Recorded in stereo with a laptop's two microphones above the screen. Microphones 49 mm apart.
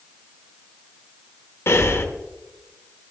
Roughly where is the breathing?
Left.